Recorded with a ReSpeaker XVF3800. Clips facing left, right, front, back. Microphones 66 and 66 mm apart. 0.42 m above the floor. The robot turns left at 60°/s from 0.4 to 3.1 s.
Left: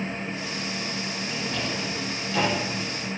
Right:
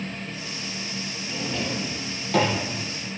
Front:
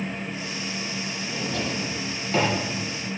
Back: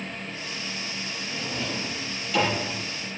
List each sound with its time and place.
1.3 s a drawer: 10° left, 7 m; by 2.6 s 70° right, 7 m